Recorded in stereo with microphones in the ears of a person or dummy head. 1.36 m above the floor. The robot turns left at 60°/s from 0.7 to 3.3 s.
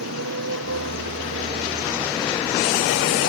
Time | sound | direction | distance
0.0 | a motorcycle | 95° right | ?